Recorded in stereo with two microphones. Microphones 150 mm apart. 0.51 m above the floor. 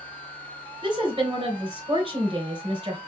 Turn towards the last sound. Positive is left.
turn(degrees=-35)  # may be behind; listen again after turning